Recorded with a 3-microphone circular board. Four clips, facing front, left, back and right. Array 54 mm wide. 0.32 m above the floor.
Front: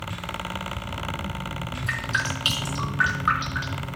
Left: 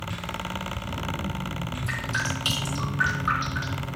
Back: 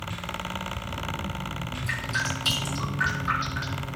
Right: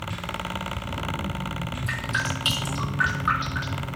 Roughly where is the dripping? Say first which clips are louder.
Right 1 dB, front 3 dB; ahead.